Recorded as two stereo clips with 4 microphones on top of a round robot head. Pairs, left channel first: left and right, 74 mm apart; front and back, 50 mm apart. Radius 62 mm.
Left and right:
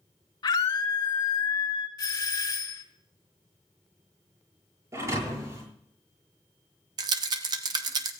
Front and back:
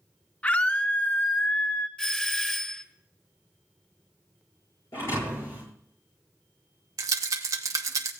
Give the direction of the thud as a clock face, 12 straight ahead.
1 o'clock.